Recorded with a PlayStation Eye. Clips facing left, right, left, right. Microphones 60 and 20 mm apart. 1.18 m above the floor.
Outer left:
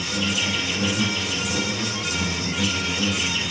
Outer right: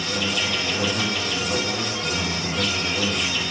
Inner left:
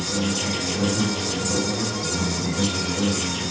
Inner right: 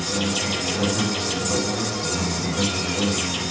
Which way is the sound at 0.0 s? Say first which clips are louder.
Even, inner right 1 dB; 80° right.